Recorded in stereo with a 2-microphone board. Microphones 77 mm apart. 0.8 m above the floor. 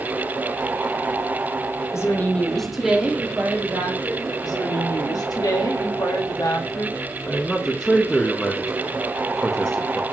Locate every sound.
1.9 s a woman speaking: 40° left (ahead or behind), 0.7 m; by 4.3 s 30° right (ahead or behind), 1.7 m
4.4 s a woman speaking: 55° left (ahead or behind), 0.9 m
7.3 s a man speaking: 10° left (ahead or behind), 0.6 m